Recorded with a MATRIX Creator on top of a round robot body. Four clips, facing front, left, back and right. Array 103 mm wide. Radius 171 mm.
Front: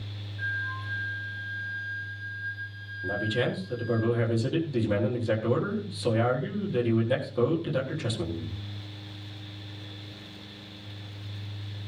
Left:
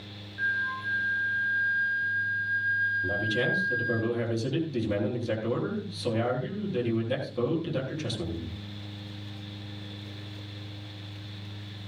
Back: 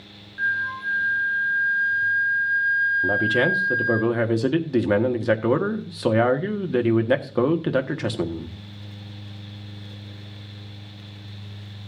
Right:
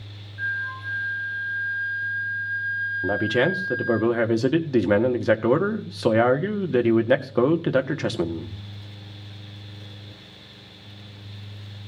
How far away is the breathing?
I don't hear breathing.